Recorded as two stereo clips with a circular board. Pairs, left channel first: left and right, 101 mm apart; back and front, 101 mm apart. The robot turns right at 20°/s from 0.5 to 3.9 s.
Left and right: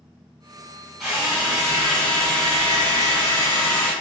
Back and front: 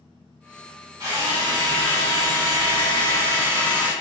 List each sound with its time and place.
1.0 s a drill: 10° right, 1.3 m; by 3.9 s 45° left, 1.3 m